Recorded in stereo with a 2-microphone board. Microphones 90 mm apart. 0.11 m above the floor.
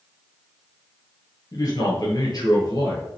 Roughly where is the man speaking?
Left.